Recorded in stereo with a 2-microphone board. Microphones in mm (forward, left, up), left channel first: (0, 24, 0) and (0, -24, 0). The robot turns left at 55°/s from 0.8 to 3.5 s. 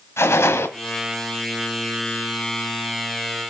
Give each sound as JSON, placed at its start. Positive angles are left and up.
{"t": 0.2, "sound": "a gunshot", "side_deg": 75, "distance_m": 1.7}